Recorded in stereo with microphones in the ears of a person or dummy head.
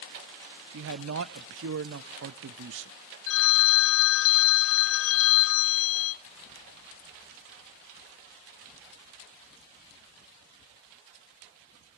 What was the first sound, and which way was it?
A man speaking, 70° right (ahead or behind).